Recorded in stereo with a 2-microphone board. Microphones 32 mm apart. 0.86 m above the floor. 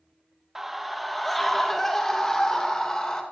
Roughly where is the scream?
Centre.